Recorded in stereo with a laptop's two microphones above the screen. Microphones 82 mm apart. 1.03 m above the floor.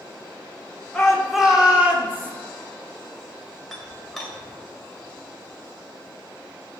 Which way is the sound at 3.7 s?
Centre (ahead or behind).